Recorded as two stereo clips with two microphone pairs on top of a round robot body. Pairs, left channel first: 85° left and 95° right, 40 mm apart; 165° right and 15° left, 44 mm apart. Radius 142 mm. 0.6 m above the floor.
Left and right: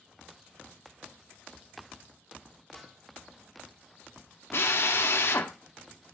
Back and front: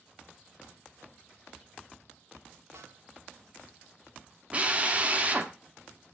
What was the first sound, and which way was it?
A snare drum, straight ahead.